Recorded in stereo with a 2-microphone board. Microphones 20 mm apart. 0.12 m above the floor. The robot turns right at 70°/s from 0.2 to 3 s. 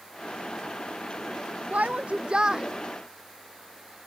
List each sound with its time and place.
1.7 s a shout: 90° right; by 2.7 s 25° right